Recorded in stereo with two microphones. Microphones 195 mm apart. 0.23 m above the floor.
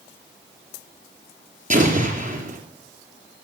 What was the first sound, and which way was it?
An explosion, 40° right (ahead or behind).